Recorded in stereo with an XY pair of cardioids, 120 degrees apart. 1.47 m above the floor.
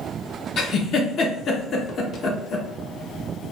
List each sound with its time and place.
0.6 s a giggle: 50° left, 0.7 m